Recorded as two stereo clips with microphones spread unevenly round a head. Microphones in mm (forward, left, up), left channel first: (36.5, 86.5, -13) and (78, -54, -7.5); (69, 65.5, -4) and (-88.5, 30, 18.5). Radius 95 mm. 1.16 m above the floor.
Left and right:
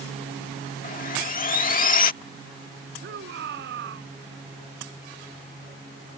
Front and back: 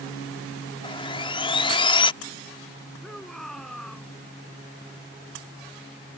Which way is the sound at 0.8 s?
75° left.